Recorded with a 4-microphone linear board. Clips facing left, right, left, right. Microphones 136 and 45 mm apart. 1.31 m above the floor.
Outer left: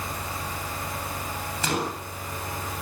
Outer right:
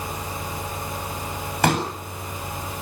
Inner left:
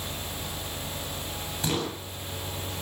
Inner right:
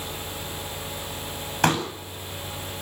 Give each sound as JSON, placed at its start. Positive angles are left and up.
{"t": 1.6, "sound": "a pop", "side_deg": -65, "distance_m": 8.5}